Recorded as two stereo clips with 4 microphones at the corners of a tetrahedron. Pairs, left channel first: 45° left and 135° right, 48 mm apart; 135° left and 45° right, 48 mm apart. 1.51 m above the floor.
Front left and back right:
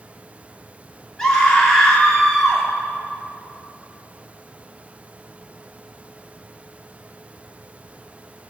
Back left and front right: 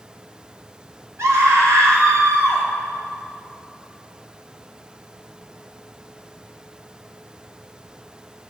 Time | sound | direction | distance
1.2 | a scream | 35° right | 3.5 m